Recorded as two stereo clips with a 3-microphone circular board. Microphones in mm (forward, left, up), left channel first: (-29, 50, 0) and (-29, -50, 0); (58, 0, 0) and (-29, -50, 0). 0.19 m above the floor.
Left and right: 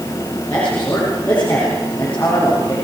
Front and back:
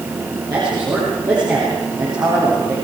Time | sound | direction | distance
0.5 | a man speaking | 165° left | 7.5 m